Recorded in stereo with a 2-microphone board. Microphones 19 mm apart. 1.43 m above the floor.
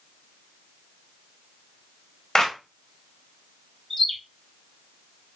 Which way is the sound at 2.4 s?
25° left (ahead or behind).